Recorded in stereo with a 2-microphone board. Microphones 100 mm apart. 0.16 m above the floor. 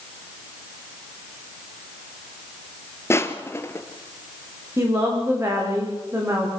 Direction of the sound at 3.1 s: 30° left (ahead or behind).